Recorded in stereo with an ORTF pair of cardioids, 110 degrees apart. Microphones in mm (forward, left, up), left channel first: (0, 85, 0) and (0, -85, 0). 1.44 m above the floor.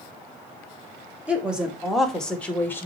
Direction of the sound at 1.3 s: 5° right.